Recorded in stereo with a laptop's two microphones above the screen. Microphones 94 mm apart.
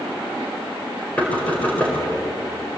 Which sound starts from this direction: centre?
Knocking, at 1.2 s.